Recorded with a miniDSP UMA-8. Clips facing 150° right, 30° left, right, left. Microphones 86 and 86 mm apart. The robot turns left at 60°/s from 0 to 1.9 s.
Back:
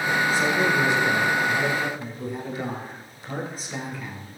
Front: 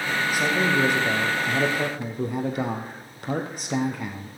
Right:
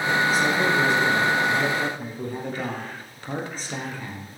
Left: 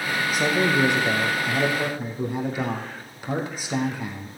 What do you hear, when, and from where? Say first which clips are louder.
0.3 s a man speaking: front 2 dB, even; 105° left, 3.5 m; by 4.3 s 10° left, 3.5 m